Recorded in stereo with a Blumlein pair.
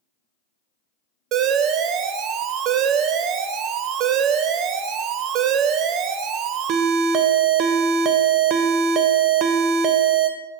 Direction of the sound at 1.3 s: 35° right.